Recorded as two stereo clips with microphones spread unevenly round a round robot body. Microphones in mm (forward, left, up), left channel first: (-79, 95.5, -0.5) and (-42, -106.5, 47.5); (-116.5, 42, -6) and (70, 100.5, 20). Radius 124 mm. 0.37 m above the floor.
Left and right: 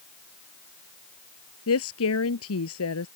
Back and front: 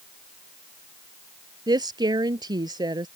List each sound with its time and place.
1.7 s a woman speaking: 85° left